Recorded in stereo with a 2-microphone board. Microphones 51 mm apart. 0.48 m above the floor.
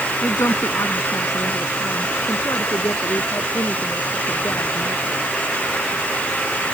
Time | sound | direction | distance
0.2 | a woman speaking | 75° left (ahead or behind) | ?